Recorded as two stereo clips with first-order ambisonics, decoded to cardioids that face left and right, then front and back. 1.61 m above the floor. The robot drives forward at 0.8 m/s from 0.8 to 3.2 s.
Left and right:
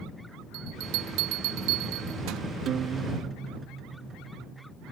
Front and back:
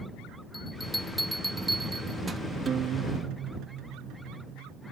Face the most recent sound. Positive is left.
turn(degrees=-155)